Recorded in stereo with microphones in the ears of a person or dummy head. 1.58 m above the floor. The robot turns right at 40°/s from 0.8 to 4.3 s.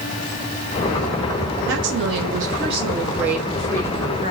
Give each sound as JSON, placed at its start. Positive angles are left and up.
{"t": 1.7, "sound": "a woman speaking", "azimuth_deg": -75, "distance_m": 0.9}